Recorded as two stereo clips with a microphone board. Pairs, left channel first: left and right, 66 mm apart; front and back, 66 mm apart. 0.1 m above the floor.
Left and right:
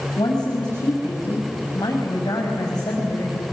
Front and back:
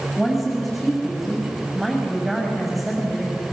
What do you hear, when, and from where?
0.2 s a woman speaking: 90° left, 7 m